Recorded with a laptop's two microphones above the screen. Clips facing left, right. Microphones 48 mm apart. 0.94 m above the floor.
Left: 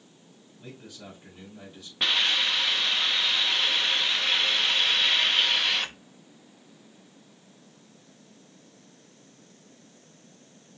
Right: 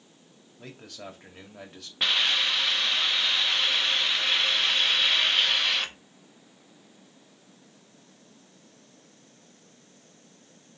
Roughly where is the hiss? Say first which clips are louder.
Even; centre.